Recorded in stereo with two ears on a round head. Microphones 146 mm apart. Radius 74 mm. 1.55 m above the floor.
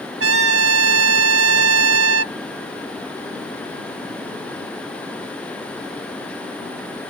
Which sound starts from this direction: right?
A trumpet, at 0.2 s.